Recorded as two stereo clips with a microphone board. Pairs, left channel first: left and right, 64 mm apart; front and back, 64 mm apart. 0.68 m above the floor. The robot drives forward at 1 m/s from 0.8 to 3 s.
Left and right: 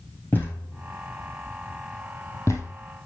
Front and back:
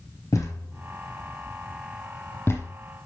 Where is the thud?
30° left, 4 m; by 2.7 s 50° left, 2.5 m.